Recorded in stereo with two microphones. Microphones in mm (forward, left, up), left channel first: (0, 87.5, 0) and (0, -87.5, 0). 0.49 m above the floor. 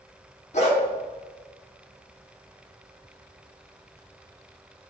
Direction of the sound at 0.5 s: 40° left (ahead or behind).